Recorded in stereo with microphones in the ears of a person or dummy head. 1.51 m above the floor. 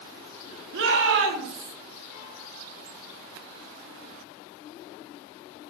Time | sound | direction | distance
0.7 | a shout | 60° right (ahead or behind) | 2.5 m